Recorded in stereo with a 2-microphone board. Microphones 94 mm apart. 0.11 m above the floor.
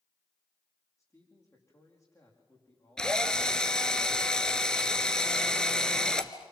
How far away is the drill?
About 1.4 m.